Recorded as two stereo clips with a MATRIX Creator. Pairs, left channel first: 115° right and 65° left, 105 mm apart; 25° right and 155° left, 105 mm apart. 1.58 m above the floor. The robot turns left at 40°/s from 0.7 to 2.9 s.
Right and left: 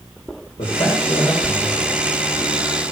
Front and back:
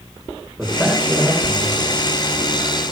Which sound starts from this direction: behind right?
A man speaking, at 0.6 s.